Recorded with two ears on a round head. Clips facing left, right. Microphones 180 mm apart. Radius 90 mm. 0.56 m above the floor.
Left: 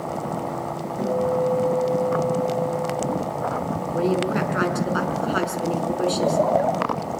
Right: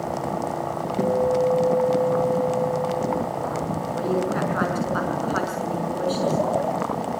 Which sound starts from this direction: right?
A guitar, at 1.0 s.